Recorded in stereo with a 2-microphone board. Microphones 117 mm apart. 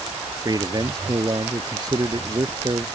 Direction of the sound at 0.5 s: 35° right (ahead or behind).